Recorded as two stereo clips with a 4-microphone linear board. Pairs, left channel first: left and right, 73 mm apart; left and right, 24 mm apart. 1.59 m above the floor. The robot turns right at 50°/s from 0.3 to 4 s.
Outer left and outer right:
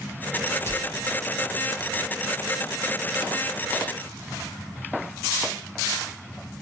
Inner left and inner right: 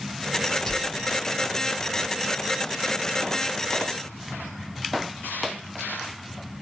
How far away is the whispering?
About 0.7 m.